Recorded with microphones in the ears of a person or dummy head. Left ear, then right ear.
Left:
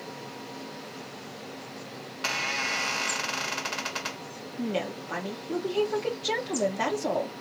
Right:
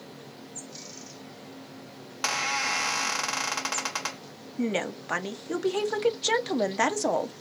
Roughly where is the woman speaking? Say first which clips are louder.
Right 2 dB; right.